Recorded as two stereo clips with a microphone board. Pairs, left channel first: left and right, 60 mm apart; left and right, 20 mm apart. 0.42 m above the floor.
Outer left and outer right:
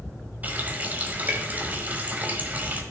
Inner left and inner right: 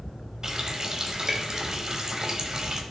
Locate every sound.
0.4 s a running tap: 30° right (ahead or behind), 1.2 m